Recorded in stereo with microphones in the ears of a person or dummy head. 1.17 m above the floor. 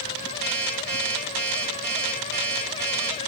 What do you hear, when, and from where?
0.4 s an alarm clock: 10° left (ahead or behind), 2.5 m